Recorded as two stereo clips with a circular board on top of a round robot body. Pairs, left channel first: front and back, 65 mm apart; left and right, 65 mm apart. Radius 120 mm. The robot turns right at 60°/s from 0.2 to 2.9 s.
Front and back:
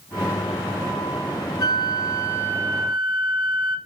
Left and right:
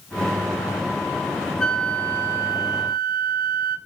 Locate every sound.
1.6 s a flute: 10° left, 3.5 m; by 3.8 s 90° left, 3.5 m